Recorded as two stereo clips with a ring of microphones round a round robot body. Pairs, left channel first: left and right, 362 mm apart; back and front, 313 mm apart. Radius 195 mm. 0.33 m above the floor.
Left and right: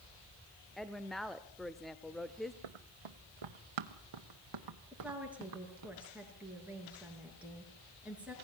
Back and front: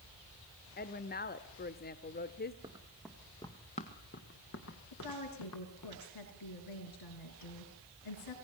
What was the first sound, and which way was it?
A woman speaking, straight behind.